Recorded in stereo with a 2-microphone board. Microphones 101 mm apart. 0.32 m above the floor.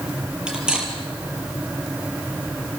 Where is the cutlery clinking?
10° right (ahead or behind), 5 m.